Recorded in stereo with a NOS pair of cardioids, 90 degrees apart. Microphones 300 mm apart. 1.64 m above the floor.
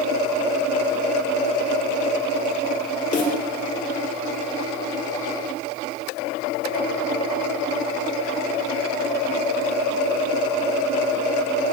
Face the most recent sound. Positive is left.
turn(degrees=25)